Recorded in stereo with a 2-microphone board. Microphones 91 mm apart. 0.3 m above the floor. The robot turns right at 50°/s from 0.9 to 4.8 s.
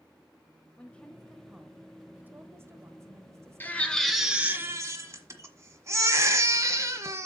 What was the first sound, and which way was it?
A woman speaking, 15° left (ahead or behind).